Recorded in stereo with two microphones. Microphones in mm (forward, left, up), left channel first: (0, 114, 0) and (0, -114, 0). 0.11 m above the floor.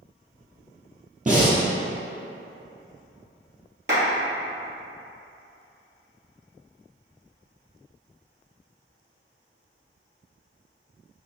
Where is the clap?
55° right (ahead or behind), 1.9 m.